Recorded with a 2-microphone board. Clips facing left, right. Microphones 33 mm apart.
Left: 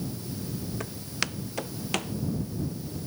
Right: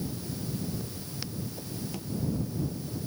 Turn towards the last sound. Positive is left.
turn(degrees=85)